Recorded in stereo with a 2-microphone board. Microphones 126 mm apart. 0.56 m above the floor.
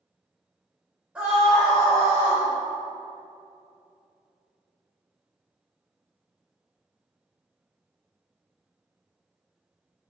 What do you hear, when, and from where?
1.1 s a scream: 10° right (ahead or behind), 2.5 m; by 2.4 s 25° left (ahead or behind), 3 m